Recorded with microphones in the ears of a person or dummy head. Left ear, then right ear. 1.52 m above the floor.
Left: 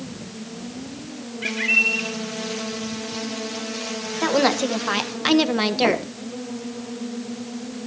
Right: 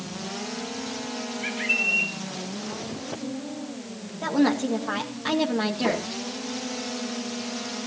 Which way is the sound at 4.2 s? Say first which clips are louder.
Left 4 dB; 60° left (ahead or behind).